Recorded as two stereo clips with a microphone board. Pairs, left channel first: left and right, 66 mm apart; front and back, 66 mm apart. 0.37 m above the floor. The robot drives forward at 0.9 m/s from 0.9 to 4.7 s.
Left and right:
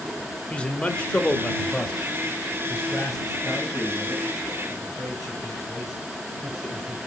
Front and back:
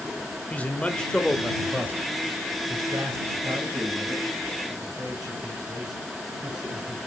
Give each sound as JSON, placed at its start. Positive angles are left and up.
{"t": 0.5, "sound": "a man speaking", "azimuth_deg": 40, "distance_m": 1.0}